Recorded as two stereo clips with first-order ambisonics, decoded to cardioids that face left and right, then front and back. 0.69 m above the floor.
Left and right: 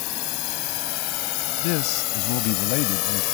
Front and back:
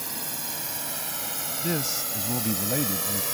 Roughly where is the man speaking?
Left.